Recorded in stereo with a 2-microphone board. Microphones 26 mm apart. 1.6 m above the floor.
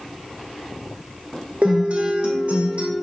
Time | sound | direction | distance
1.6 | a guitar | 50° right (ahead or behind) | 0.6 m